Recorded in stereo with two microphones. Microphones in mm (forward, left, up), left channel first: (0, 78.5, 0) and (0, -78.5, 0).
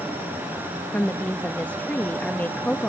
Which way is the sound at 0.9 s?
10° left (ahead or behind).